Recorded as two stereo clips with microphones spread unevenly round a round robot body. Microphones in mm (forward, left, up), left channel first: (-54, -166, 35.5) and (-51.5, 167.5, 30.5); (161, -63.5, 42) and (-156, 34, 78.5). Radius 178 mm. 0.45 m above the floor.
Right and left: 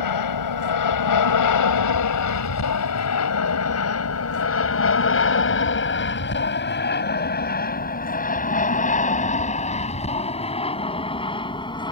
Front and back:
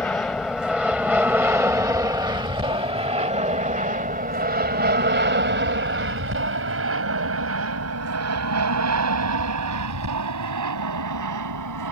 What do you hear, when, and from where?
0.0 s an aircraft: 100° right; by 11.9 s 165° right